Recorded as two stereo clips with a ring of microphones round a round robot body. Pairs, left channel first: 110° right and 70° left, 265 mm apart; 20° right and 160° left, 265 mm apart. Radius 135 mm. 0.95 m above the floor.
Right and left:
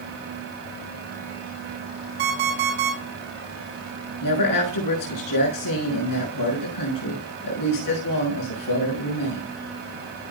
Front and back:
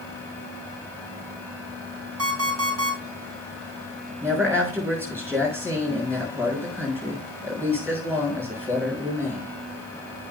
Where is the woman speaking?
120° right, 6.5 m.